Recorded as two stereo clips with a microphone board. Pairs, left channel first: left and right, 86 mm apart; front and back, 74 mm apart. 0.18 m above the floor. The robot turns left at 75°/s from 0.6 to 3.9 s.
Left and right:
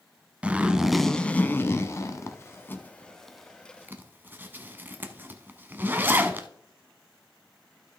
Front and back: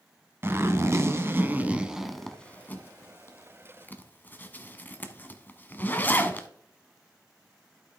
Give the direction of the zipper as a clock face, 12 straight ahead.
5 o'clock.